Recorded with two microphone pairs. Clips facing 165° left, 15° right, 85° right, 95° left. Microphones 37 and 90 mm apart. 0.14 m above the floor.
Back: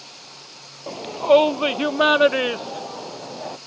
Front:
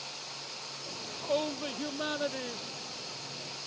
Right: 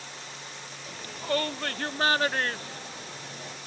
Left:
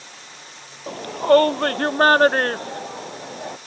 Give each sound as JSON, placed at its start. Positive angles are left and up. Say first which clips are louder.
{"t": 0.9, "sound": "a shout", "louder": "back 17 dB, left 15 dB", "azimuth_deg": 130}